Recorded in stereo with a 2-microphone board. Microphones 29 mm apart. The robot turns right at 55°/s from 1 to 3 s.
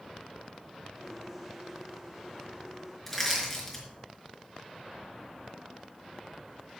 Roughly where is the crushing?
Centre.